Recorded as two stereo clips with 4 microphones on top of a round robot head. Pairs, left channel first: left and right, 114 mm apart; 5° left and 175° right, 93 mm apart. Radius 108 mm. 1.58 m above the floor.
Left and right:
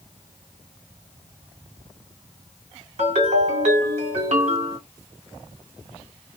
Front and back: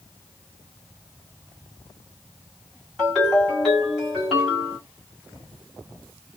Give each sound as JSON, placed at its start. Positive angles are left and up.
{"t": 3.0, "sound": "a ringtone", "azimuth_deg": -85, "distance_m": 1.6}